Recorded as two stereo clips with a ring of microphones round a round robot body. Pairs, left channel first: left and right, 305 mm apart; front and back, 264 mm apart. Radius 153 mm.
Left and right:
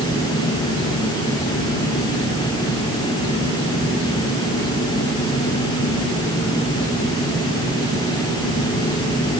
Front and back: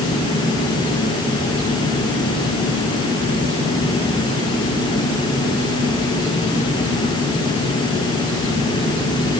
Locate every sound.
Only background noise.